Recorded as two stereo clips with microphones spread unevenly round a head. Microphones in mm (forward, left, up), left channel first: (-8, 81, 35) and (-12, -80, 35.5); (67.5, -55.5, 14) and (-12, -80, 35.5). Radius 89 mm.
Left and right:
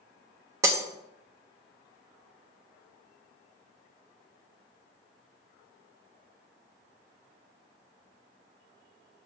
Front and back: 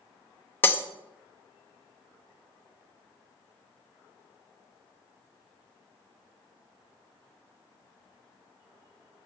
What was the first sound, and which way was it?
Breaking glass, 45° right.